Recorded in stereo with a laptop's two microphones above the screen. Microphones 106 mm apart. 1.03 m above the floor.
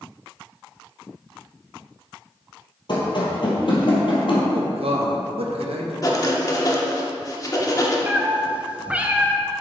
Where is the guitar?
I don't hear a guitar.